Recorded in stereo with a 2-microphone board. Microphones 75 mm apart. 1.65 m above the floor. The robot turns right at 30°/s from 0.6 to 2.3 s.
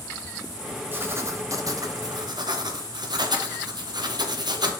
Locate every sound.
0.9 s writing: 150° right, 1.0 m; by 4.7 s 110° right, 1.0 m